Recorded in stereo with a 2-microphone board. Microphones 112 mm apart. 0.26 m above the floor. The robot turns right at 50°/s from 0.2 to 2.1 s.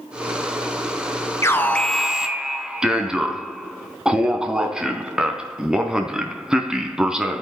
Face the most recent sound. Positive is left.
turn(degrees=-175)